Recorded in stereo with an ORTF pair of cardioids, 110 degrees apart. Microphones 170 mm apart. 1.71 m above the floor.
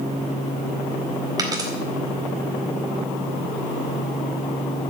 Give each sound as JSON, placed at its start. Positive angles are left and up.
{"t": 1.4, "sound": "a dropped coin", "azimuth_deg": -25, "distance_m": 4.0}